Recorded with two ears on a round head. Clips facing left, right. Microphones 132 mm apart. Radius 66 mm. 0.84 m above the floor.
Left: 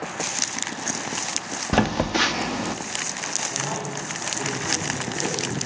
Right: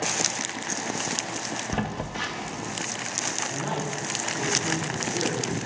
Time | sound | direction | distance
1.7 | a phone buzzing | 70° left (ahead or behind) | 0.6 m
3.5 | a man speaking | 55° right (ahead or behind) | 7 m